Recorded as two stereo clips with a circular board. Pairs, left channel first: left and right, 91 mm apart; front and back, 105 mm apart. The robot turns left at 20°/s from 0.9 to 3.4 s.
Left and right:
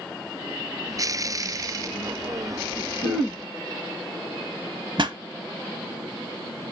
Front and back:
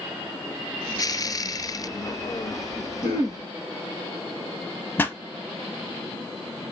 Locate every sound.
3.0 s throat clearing: 55° left, 3 m; by 3.4 s 50° left, 3 m
5.0 s a pop: 70° right, 0.6 m